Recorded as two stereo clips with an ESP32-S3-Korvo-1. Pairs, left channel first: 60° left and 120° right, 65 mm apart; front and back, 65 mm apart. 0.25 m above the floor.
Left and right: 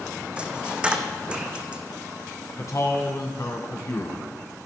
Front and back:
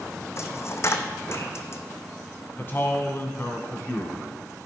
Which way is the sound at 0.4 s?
45° right.